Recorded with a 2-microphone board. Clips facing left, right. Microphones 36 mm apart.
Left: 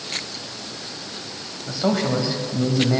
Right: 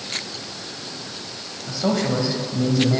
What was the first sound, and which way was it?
A man speaking, 10° left (ahead or behind).